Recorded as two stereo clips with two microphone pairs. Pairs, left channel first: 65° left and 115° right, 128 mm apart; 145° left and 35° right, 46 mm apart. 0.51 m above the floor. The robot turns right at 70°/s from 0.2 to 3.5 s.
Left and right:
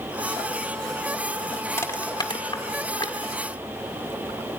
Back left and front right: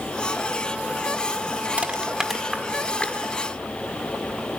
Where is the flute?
I don't hear a flute.